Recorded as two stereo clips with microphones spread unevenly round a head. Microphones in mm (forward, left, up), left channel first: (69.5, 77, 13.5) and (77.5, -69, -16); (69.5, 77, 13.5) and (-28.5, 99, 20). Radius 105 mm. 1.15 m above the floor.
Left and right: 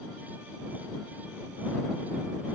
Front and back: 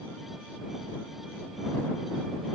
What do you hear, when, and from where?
Only background noise.